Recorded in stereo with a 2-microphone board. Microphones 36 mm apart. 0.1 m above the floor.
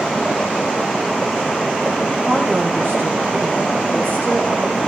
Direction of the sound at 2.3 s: 70° right (ahead or behind).